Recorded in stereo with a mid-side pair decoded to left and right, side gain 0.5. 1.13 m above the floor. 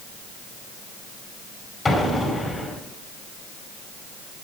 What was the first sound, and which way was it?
An explosion, 20° left.